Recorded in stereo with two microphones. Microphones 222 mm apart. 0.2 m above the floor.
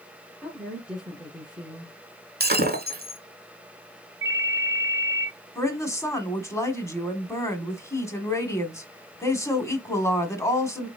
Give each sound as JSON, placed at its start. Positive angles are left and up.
{"t": 0.4, "sound": "a woman speaking", "side_deg": -5, "distance_m": 2.5}
{"t": 2.4, "sound": "breaking glass", "side_deg": -45, "distance_m": 1.0}
{"t": 4.2, "sound": "a ringtone", "side_deg": -60, "distance_m": 1.0}
{"t": 5.5, "sound": "a woman speaking", "side_deg": 15, "distance_m": 1.4}